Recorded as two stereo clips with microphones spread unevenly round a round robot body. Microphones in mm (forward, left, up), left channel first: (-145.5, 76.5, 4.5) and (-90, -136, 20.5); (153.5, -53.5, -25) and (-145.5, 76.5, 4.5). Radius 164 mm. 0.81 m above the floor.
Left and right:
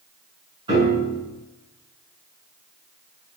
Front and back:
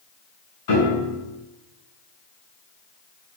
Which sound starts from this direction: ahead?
A piano, at 0.7 s.